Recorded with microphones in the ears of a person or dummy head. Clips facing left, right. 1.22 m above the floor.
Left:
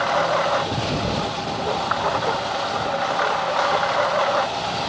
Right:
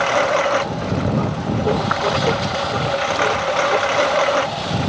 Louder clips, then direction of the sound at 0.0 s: Right 3 dB; 45° right (ahead or behind).